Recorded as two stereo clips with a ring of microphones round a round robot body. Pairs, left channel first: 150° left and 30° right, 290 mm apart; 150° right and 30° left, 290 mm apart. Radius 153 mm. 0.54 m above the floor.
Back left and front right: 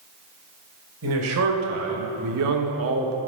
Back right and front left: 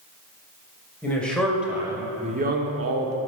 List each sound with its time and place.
1.0 s a man speaking: 65° right, 2.5 m; by 3.1 s 20° left, 1.2 m